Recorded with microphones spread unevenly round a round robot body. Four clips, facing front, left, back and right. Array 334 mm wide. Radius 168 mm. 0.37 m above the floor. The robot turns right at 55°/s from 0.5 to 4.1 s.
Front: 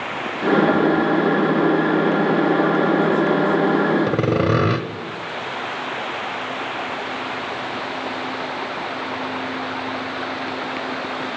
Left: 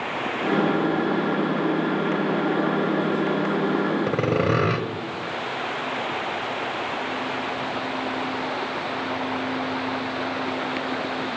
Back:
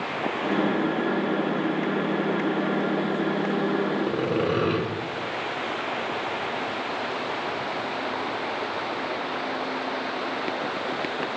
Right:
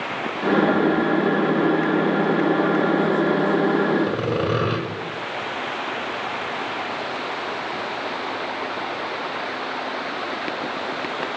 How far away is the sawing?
About 0.6 m.